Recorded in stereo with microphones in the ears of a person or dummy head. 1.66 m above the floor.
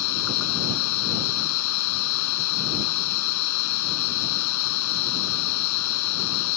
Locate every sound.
0.0 s a machine running: 80° left